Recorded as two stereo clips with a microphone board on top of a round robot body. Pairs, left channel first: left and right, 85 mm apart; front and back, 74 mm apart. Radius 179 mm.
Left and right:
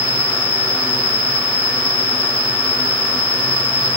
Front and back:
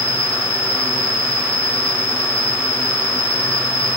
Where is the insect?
110° left, 5.5 m.